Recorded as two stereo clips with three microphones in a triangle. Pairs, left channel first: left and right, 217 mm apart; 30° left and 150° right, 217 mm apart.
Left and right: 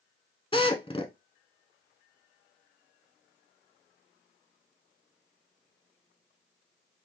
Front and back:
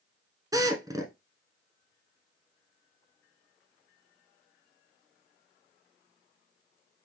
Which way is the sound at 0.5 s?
145° left.